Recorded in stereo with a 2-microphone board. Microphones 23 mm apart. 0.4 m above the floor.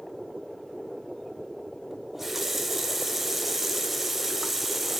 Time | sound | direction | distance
1.9 | a running tap | 10° right (ahead or behind) | 1.0 m